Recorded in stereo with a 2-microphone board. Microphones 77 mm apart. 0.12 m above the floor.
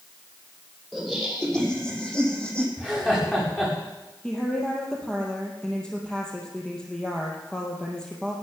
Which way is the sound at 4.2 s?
10° left (ahead or behind).